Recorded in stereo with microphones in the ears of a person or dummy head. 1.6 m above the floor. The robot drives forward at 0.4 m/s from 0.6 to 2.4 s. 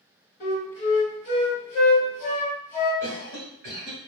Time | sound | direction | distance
0.4 | a flute | 35° left (ahead or behind) | 1.5 m
3.0 | a cough | 65° right (ahead or behind) | 1.3 m